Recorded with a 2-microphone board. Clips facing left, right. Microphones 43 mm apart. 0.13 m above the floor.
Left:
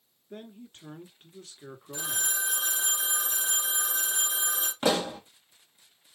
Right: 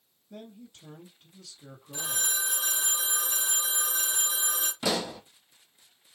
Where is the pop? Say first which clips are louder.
Left 4 dB; 40° left (ahead or behind), 1.1 m.